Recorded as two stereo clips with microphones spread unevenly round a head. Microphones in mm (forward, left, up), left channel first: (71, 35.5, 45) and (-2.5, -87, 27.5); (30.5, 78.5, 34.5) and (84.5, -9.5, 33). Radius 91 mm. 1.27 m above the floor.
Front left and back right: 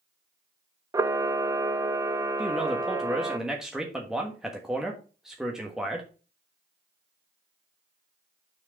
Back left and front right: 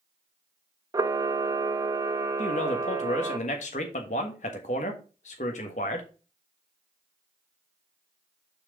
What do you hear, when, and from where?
0.9 s a camera shutter: 85° right, 0.6 m
2.4 s a man speaking: 150° left, 1.3 m